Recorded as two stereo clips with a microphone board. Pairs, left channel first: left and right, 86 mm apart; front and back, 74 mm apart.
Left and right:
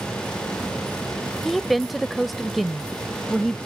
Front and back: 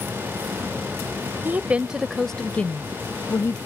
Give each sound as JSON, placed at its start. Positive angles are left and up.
{"t": 1.4, "sound": "a woman speaking", "azimuth_deg": 180}